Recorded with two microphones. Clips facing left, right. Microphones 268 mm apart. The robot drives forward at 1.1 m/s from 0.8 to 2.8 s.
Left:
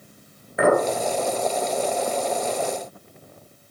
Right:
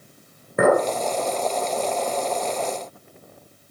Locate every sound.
0.6 s a clink: 50° right (ahead or behind), 1.7 m